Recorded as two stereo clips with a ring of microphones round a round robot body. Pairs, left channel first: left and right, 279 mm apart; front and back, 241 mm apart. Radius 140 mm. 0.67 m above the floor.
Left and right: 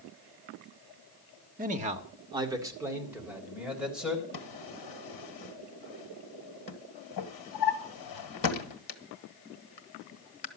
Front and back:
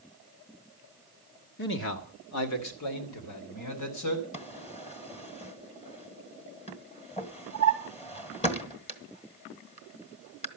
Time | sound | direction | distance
1.6 | a man speaking | 35° right | 1.5 m
4.3 | a drawer | 65° left | 1.7 m